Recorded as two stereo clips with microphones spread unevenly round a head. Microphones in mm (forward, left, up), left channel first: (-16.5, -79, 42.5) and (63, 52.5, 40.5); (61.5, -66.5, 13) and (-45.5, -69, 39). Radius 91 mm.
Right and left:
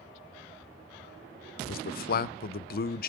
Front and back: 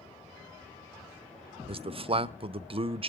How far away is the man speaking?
About 0.7 m.